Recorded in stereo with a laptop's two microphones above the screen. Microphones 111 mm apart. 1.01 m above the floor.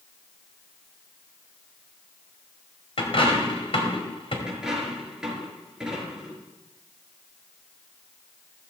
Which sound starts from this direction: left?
A dropped coin, at 3.0 s.